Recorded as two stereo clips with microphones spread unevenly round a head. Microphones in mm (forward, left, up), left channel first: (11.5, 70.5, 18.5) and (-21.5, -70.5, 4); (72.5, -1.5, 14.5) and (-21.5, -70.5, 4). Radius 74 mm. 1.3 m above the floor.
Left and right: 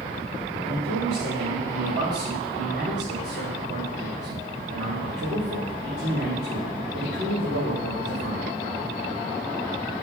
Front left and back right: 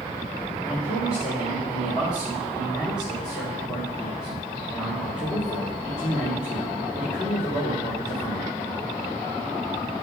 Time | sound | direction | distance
0.6 | a man speaking | 60° right | 2.5 m